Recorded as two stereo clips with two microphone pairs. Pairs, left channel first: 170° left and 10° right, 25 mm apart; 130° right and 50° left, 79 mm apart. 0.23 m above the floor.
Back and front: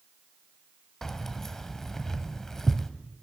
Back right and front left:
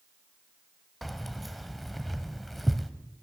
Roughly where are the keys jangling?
Behind left.